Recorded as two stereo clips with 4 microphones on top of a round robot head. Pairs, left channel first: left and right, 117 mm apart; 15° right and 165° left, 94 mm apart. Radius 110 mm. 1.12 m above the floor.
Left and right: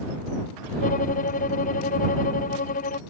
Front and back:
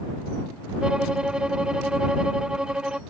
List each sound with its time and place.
0.8 s a violin: 85° left